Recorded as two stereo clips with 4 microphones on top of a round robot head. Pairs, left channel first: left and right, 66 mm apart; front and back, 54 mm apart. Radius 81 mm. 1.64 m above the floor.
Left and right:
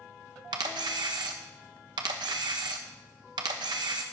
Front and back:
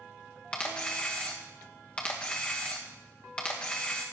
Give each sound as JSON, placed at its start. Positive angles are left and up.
{"t": 0.5, "sound": "a camera shutter", "azimuth_deg": -75, "distance_m": 1.0}